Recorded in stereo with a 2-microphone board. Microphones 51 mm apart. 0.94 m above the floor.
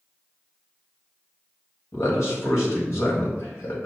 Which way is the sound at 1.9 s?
60° left (ahead or behind).